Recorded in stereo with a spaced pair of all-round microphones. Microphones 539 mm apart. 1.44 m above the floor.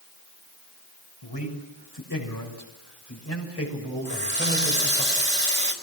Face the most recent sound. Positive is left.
turn(degrees=-70)  # may be behind; listen again after turning